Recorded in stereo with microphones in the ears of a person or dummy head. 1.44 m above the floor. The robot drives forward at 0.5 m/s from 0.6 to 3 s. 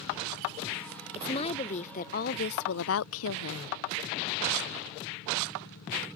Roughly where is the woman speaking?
Left.